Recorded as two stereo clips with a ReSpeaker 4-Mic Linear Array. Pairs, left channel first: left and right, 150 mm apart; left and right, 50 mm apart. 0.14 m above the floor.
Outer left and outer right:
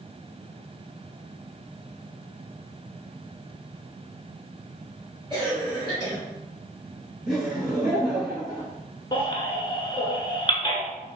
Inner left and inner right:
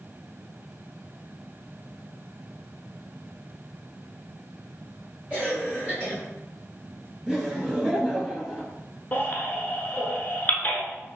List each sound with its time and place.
5.3 s a cough: 30° right (ahead or behind), 1.9 m
7.3 s laughter: 25° right (ahead or behind), 1.8 m
9.1 s a baby crying: 30° left (ahead or behind), 0.6 m